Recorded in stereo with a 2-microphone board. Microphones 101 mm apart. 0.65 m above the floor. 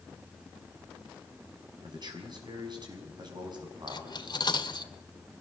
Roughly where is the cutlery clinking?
Left.